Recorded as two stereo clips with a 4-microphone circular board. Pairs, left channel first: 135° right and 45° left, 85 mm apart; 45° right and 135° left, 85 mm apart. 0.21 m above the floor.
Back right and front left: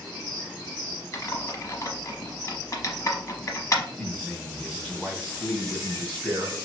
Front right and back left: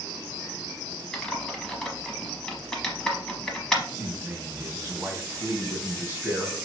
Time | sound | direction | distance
1.1 | typing on a keyboard | 125° right | 0.9 m
4.0 | a man speaking | 170° left | 1.5 m